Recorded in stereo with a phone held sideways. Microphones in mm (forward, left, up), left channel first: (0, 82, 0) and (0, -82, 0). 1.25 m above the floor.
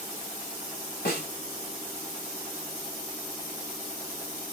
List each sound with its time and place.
1.1 s a snare drum: 80° left, 2.5 m